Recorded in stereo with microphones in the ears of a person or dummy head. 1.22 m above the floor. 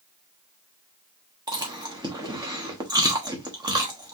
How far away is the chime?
I don't hear a chime.